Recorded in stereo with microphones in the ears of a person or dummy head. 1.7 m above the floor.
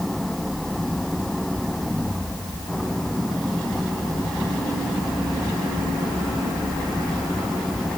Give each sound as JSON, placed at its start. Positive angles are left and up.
{"t": 0.0, "sound": "an engine running", "side_deg": 0}